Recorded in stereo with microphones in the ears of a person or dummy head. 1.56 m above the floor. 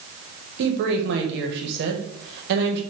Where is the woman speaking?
60° right (ahead or behind), 1.1 m.